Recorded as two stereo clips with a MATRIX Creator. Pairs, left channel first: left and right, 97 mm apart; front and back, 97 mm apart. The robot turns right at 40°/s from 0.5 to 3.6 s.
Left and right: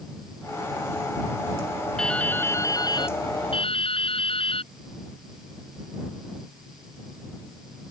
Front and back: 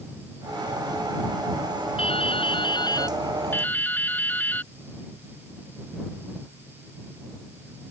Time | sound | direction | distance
2.0 | dripping | 5° left | ?